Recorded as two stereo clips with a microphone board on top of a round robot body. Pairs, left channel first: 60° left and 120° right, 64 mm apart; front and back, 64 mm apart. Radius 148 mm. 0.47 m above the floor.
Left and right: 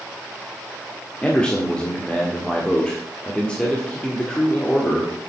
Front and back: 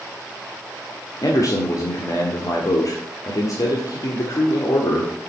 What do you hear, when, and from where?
1.2 s a man speaking: 15° right, 1.8 m